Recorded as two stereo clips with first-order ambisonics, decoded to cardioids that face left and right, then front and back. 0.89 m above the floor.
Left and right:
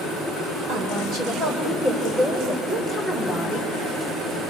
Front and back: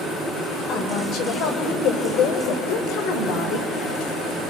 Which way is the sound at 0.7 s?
40° right.